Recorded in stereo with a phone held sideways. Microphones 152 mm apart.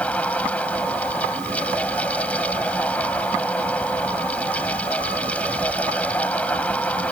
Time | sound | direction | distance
0.0 | a fan | 10° left (ahead or behind) | ?